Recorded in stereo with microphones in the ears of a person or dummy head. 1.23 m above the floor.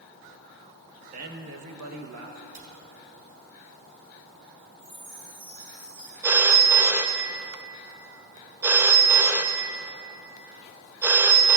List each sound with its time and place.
1.1 s a man speaking: 35° right (ahead or behind), 1.6 m; by 2.4 s 60° right (ahead or behind), 1.6 m
2.5 s a cupboard door: 40° right (ahead or behind), 4.5 m
4.8 s a chime: 35° right (ahead or behind), 5 m
6.2 s a phone ringing: 10° right (ahead or behind), 0.6 m